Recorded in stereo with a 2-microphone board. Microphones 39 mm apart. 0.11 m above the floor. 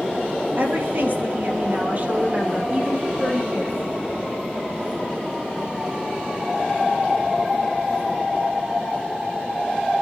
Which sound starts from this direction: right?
A woman speaking, at 0.6 s.